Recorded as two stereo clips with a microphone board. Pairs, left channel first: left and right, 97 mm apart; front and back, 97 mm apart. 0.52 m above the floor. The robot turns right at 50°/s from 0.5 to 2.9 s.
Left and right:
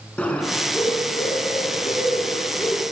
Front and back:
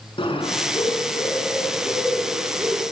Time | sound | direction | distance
0.2 | a bird | 15° left | 4.5 m